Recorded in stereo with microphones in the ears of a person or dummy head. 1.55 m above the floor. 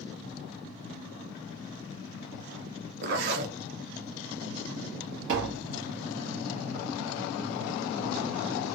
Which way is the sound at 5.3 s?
65° right (ahead or behind).